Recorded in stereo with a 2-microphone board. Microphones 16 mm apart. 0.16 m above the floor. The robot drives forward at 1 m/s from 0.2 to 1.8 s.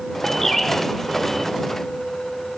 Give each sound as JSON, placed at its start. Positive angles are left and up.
{"t": 0.4, "sound": "a bird", "side_deg": 30, "distance_m": 3.0}